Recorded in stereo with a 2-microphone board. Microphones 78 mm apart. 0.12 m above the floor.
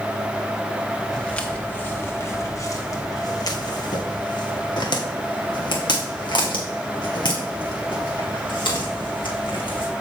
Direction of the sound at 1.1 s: 10° left (ahead or behind).